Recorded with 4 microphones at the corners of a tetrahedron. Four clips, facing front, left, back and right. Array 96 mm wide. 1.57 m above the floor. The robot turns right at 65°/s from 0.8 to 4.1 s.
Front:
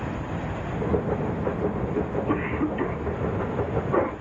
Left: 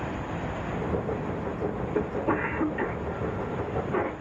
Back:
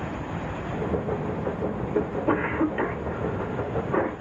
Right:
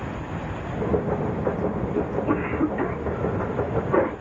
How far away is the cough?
About 1.5 m.